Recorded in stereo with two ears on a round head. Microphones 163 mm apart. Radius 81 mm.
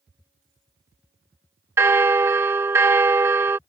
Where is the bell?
15° right (ahead or behind).